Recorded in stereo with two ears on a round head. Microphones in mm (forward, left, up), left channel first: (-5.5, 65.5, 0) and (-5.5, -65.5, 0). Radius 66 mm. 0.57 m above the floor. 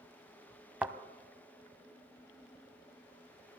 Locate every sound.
0.8 s a thud: 10° right (ahead or behind), 0.9 m